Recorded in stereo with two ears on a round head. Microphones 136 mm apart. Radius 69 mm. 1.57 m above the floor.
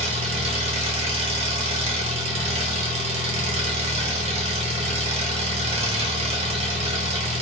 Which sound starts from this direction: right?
An engine running, at 0.0 s.